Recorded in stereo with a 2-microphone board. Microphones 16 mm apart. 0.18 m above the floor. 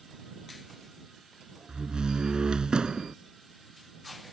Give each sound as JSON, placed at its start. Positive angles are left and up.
{"t": 1.7, "sound": "a door slam", "side_deg": -45}